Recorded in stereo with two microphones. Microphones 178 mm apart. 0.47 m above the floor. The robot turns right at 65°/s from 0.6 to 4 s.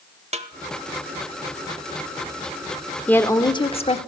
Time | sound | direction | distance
0.3 | a snare drum | 40° right (ahead or behind) | 1.1 m
3.1 | a woman speaking | 10° left | 1.0 m